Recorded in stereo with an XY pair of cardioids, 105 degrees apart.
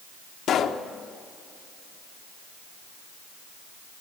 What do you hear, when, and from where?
0.5 s a pop: 65° left, 1.2 m